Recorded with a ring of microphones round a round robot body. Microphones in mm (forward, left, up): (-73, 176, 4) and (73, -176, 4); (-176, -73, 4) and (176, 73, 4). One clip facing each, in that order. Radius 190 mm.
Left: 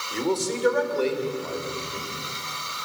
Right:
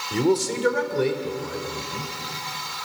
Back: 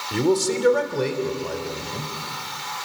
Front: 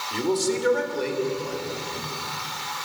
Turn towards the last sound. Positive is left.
turn(degrees=-140)